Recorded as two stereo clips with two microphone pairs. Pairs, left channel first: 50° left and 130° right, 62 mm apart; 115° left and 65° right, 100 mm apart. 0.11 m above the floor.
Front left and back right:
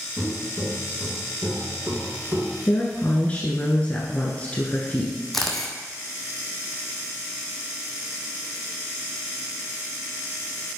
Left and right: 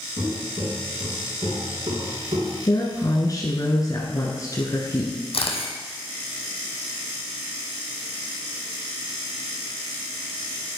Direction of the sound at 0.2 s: 75° right.